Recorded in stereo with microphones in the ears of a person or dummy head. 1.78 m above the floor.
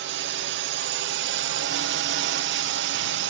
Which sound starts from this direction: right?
A drone, at 0.0 s.